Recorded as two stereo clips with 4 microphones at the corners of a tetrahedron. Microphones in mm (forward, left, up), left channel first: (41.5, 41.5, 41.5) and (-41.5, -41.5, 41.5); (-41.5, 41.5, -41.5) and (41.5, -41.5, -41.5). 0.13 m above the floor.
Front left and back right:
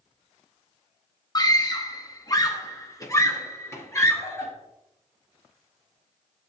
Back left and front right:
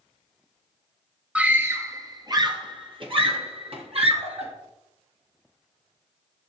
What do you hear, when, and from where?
1.4 s a scream: 30° left, 1.4 m; by 4.5 s 20° right, 3 m